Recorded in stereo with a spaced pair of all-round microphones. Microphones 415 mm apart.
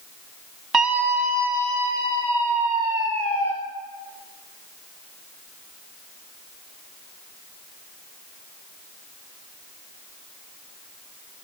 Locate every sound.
0.7 s a scream: 60° right (ahead or behind), 1.0 m; by 3.5 s 80° right, 3.5 m